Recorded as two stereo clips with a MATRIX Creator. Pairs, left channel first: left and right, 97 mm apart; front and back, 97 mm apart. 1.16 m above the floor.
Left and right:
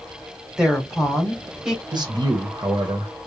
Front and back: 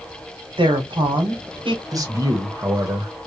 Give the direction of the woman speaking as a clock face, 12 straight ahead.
6 o'clock.